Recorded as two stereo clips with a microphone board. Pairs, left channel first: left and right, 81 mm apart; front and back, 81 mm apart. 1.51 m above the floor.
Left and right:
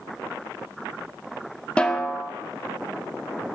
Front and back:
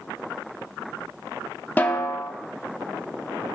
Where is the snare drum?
30° left, 1.0 m.